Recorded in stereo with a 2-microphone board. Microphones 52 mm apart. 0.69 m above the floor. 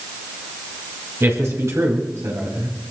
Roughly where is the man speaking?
Right.